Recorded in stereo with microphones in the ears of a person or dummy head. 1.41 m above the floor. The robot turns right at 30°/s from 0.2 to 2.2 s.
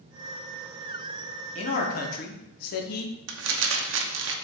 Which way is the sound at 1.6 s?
45° left (ahead or behind).